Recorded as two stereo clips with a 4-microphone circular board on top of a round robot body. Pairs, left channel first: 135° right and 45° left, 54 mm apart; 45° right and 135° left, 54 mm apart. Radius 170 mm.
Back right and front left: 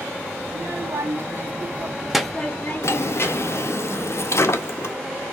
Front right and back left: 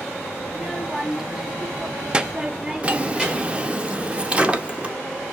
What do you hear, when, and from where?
0.5 s a child speaking: 50° left, 1.0 m; by 3.7 s 150° right, 0.9 m
2.8 s a drawer: 160° right, 0.5 m